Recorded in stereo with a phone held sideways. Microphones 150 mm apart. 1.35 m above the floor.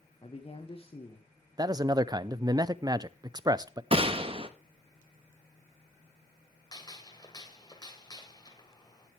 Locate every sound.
0.2 s a man speaking: 40° left (ahead or behind), 1.6 m
1.6 s a man speaking: 25° right (ahead or behind), 0.5 m
3.9 s a gunshot: 40° right (ahead or behind), 1.0 m
6.7 s a gunshot: 30° left (ahead or behind), 1.7 m